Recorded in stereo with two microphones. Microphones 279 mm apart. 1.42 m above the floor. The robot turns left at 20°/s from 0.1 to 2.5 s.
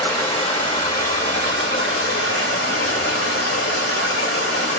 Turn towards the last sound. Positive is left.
turn(degrees=115)